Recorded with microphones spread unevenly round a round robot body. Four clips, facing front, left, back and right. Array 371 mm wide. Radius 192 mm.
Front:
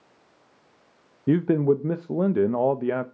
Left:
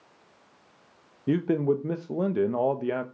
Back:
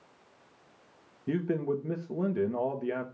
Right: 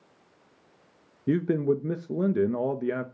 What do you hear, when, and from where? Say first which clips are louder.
1.3 s a man speaking: even, front 10 dB; 25° right, 1.0 m